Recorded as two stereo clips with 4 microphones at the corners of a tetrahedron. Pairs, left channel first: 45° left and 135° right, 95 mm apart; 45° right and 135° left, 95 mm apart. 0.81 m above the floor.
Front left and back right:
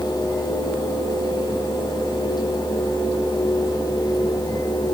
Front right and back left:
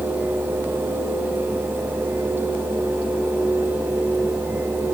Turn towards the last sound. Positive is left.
No sound to turn to.